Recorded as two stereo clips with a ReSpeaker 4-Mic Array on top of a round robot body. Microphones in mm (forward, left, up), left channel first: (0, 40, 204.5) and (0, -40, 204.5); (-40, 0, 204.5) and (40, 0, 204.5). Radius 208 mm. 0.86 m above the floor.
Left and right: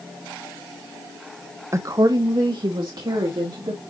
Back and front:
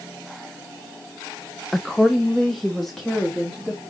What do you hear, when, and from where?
1.7 s a woman speaking: 95° right, 0.9 m